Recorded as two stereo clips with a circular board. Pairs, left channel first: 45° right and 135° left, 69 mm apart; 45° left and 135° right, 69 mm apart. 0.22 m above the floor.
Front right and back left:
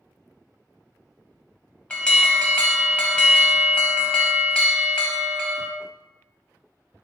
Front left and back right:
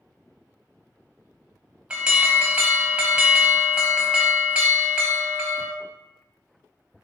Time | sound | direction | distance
1.9 | an alarm | 85° right | 0.7 m